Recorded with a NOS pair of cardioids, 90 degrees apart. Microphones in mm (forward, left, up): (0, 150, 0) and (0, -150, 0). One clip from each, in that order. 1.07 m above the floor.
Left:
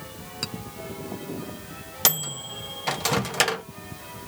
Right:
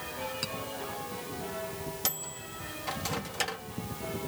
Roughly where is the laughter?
I don't hear laughter.